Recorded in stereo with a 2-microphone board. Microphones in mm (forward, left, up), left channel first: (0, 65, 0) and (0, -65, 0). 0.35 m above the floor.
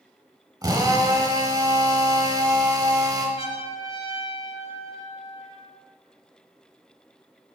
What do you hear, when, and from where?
0.6 s a drill: 30° right (ahead or behind), 1.0 m
3.4 s a trumpet: 45° left (ahead or behind), 2 m